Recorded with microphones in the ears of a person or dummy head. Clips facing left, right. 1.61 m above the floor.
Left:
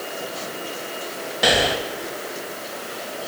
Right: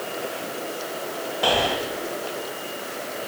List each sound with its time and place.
1.4 s breathing: 30° left (ahead or behind), 2.5 m